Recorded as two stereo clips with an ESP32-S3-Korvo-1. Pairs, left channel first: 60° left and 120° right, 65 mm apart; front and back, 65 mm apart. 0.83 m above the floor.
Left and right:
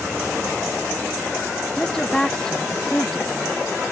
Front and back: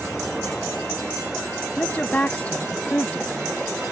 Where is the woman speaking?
Straight ahead.